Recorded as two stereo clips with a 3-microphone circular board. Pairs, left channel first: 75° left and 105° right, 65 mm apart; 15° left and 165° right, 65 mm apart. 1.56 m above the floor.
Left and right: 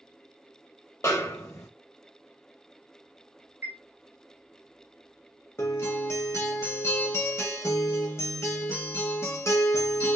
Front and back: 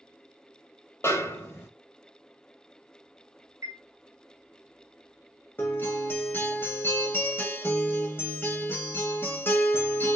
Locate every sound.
1.0 s a snare drum: 50° left, 1.1 m
3.6 s a chime: 155° right, 0.9 m
5.6 s a guitar: 50° left, 1.2 m